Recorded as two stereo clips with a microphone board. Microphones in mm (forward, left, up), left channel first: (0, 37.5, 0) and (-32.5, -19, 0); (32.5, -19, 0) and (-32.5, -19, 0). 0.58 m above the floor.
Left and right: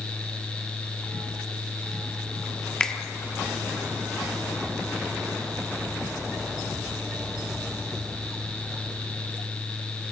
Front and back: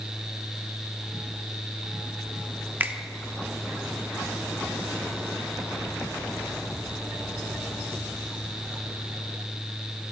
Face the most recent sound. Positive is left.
turn(degrees=135)